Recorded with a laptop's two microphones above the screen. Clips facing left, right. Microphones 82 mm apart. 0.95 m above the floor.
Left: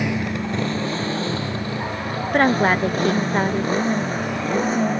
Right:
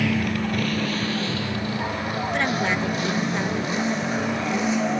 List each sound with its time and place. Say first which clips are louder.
0.0 s a motorcycle: even; 20° left (ahead or behind); by 5.0 s 40° left (ahead or behind)
2.3 s a woman speaking: left 8 dB; 45° left (ahead or behind)